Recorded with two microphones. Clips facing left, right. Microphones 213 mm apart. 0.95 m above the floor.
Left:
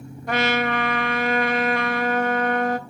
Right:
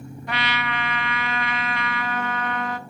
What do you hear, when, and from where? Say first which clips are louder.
0.3 s a trumpet: left 8 dB; 45° left (ahead or behind), 0.6 m